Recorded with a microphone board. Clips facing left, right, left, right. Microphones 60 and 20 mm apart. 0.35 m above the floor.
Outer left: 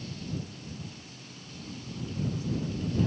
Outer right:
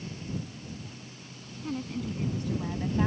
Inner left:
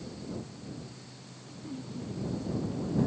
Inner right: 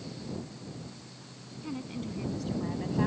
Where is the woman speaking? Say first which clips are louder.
Outer right 7 dB, inner right 3 dB; 70° right (ahead or behind); by 3.1 s 60° right (ahead or behind).